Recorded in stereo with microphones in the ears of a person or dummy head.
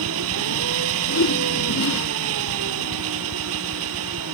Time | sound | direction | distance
0.0 | an engine running | 80° right | ?
1.1 | a whoosh | 70° left (ahead or behind) | ?